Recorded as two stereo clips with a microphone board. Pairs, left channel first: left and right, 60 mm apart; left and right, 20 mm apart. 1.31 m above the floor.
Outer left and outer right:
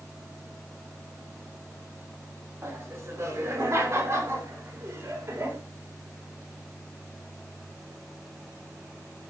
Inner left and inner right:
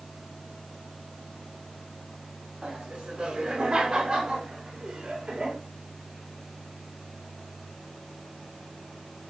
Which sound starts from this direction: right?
Laughter, at 2.6 s.